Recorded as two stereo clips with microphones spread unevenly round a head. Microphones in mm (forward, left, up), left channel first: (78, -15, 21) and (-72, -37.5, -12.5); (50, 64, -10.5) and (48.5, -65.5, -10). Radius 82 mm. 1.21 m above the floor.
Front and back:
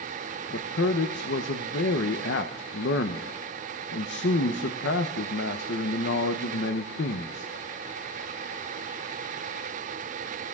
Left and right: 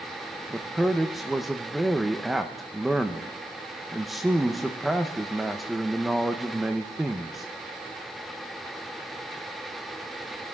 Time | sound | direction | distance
0.5 | a man speaking | straight ahead | 0.9 m